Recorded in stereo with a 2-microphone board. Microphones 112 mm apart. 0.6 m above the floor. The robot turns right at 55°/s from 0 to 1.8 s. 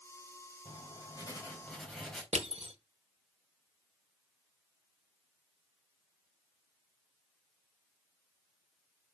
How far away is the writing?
About 3.5 m.